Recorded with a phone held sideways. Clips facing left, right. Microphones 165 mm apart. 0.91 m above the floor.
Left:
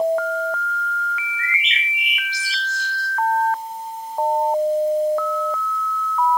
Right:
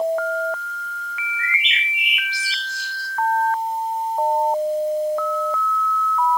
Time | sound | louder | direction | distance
1.4 | a bird | even | 45° left (ahead or behind) | 8 m